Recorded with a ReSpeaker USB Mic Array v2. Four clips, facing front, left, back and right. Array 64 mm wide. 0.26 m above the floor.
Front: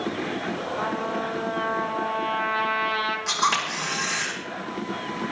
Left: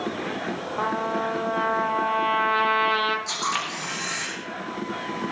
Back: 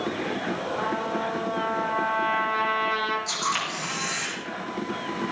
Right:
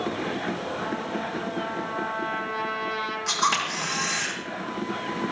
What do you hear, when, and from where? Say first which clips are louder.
0.8 s a trumpet: left 4 dB, front 1 dB; 85° left, 1.3 m
3.3 s a camera shutter: right 3 dB, front 4 dB; 45° right, 7 m